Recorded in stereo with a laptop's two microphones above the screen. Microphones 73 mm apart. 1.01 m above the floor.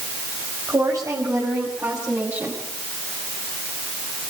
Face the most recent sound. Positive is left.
turn(degrees=-30)  # may be behind; listen again after turning